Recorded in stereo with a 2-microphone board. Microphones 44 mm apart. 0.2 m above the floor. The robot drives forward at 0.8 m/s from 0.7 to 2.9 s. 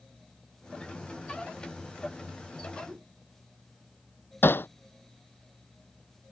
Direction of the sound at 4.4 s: 60° left (ahead or behind).